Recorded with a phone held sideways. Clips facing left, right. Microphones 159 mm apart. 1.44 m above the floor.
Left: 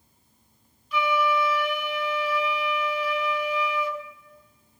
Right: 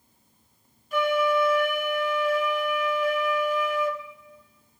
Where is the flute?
50° right (ahead or behind), 0.6 m.